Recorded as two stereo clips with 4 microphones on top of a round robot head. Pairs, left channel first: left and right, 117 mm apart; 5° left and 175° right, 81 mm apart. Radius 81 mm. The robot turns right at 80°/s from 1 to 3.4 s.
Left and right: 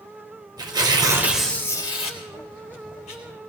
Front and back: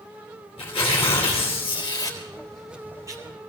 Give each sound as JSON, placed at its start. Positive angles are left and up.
{"t": 0.6, "sound": "tearing paper", "azimuth_deg": -35, "distance_m": 3.5}